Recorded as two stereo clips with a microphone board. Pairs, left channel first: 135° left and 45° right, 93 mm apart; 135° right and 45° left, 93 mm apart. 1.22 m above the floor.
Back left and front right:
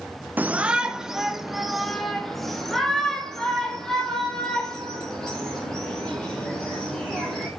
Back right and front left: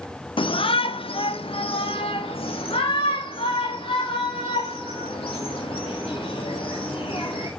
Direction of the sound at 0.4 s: 115° right.